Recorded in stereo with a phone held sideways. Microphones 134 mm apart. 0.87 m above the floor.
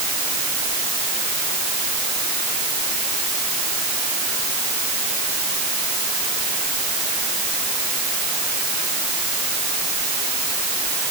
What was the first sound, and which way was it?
Only background noise.